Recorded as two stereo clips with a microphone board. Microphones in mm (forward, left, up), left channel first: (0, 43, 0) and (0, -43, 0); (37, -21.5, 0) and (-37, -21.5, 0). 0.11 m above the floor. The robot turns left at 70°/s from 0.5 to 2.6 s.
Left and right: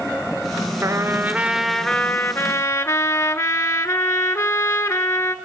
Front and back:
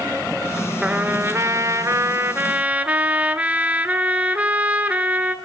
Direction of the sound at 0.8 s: 115° right.